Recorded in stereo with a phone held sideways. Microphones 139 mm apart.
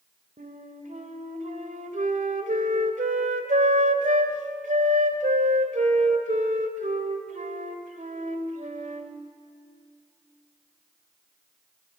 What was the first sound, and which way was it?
A flute, 85° right.